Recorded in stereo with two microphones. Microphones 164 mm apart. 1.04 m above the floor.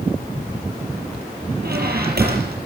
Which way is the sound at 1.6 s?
70° right (ahead or behind).